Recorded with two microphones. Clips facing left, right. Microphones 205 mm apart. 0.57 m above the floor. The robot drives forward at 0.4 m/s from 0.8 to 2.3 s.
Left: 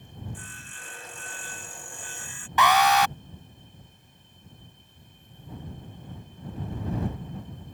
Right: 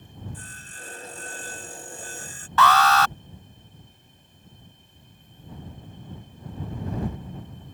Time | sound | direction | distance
0.3 | sawing | 40° right (ahead or behind) | ?
2.6 | an alarm | 15° left (ahead or behind) | ?